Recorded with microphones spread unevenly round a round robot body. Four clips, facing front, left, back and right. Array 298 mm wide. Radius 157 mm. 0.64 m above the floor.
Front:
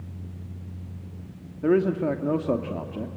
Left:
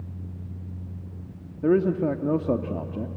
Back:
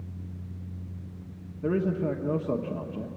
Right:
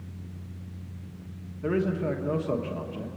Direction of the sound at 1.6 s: 50° left.